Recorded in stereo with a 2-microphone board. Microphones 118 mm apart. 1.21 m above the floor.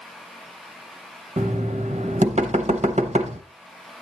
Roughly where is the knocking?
Right.